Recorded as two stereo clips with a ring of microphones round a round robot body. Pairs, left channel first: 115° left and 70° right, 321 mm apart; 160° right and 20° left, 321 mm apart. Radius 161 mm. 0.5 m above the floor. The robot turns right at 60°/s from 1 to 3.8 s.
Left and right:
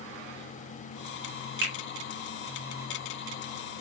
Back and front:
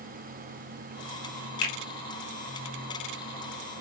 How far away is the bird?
No bird in this recording.